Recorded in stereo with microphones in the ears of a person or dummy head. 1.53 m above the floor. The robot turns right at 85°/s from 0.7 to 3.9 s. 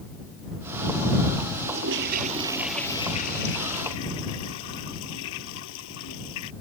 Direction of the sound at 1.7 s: 90° right.